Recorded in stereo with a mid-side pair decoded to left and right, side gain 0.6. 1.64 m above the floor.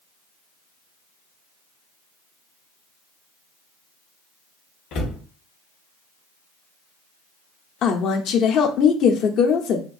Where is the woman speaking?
60° left, 0.8 m.